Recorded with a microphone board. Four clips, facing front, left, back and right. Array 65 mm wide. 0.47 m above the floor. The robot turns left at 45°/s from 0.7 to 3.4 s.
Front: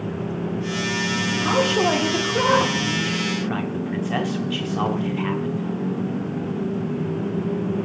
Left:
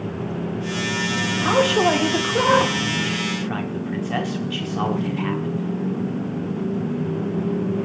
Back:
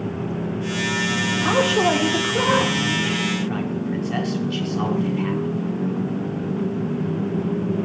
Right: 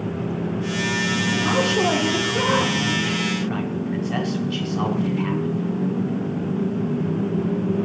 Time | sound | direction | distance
1.4 | a man speaking | 125° left | 0.7 m